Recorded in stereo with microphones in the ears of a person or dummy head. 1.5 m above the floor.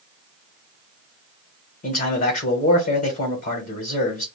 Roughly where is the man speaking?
Left.